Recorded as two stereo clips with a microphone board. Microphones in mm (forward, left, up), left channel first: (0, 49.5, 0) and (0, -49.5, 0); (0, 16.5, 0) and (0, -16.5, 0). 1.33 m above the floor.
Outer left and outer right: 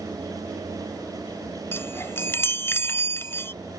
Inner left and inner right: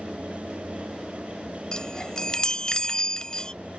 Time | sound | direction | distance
1.7 | a chime | 25° left (ahead or behind) | ?